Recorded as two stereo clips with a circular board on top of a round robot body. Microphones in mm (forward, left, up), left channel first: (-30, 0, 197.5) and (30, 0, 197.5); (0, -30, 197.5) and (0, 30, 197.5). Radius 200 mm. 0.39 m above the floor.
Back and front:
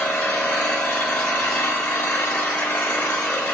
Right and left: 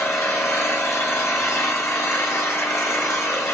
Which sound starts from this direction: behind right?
An engine running, at 0.0 s.